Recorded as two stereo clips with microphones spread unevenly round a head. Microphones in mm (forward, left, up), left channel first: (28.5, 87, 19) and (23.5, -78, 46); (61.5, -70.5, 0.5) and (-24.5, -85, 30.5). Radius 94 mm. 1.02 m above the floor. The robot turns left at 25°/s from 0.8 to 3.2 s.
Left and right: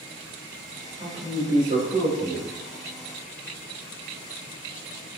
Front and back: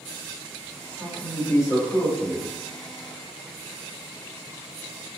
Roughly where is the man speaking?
Ahead right.